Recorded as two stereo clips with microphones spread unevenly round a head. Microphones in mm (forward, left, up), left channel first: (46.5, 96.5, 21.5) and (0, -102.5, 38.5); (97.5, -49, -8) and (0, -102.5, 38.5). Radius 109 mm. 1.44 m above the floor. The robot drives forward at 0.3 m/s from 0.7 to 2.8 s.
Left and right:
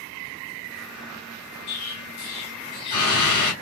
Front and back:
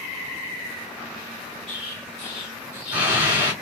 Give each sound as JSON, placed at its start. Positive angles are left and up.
{"t": 1.7, "sound": "an explosion", "azimuth_deg": 120, "distance_m": 3.0}